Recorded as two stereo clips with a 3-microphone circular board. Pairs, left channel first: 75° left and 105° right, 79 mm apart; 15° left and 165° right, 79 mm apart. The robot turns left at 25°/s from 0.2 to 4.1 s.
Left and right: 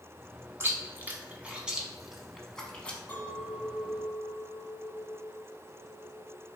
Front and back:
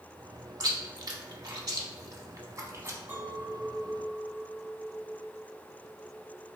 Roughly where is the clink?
Behind left.